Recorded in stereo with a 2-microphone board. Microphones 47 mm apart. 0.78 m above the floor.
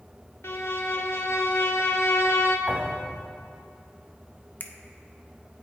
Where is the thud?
25° right (ahead or behind), 2.5 m.